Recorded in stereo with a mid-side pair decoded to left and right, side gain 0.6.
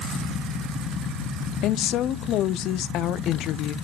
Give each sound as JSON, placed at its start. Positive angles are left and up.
{"t": 1.6, "sound": "a woman speaking", "azimuth_deg": 60, "distance_m": 0.6}